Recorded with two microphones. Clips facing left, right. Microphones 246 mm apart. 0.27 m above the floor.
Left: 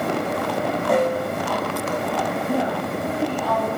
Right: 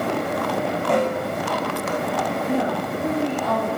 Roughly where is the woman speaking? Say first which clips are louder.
Right 1 dB; right.